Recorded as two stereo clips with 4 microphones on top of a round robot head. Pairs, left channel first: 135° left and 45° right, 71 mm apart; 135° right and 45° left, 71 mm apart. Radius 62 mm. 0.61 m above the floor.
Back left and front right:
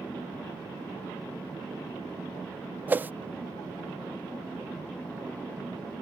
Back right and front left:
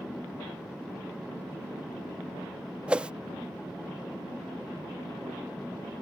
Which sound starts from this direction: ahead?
A whoosh, at 2.9 s.